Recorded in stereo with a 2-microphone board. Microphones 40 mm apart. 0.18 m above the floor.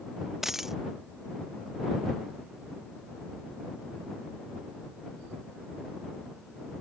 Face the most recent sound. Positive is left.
turn(degrees=-10)  # may be behind; listen again after turning